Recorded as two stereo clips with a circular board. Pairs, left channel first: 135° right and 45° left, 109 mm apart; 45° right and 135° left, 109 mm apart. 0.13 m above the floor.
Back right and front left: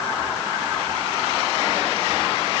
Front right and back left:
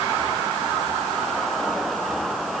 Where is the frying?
I don't hear frying.